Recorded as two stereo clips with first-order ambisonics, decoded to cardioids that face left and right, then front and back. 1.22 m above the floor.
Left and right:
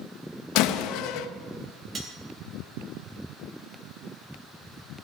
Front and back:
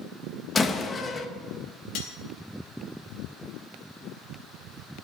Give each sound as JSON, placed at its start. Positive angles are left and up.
{"t": 0.6, "sound": "a door slam", "azimuth_deg": 70, "distance_m": 0.8}
{"t": 1.9, "sound": "cutlery clinking", "azimuth_deg": -20, "distance_m": 1.7}